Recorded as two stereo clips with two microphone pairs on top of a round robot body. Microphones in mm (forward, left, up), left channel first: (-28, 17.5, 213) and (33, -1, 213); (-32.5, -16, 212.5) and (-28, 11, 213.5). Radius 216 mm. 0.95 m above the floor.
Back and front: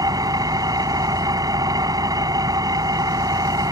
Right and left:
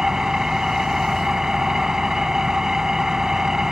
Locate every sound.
0.0 s an engine running: 5° left